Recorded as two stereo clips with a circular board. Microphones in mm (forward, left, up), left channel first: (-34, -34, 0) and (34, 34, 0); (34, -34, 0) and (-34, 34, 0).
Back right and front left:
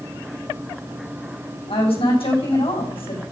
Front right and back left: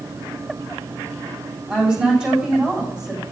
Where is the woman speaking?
145° right, 6.5 m.